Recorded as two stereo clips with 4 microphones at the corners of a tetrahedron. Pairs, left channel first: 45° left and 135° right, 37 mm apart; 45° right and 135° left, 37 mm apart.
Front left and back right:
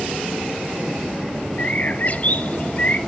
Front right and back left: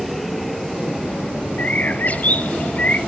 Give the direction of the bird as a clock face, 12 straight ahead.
12 o'clock.